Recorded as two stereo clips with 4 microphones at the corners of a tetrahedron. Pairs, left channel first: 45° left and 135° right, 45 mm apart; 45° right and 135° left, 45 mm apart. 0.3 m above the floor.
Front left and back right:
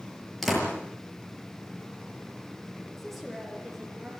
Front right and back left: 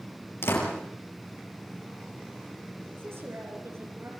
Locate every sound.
0.4 s a door slam: 40° right, 6 m
3.0 s a woman speaking: 135° left, 6.5 m